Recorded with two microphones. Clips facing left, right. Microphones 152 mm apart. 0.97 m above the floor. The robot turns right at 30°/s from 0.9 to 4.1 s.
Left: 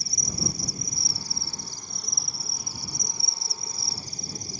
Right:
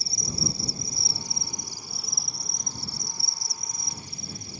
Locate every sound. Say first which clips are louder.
0.0 s an insect: even; 40° right; by 4.6 s 55° left